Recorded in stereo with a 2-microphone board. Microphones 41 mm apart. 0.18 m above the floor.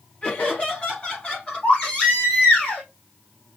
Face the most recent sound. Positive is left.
turn(degrees=30)  # may be behind; listen again after turning